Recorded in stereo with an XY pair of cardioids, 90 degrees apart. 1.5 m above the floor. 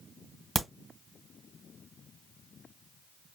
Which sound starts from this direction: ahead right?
A crack, at 0.6 s.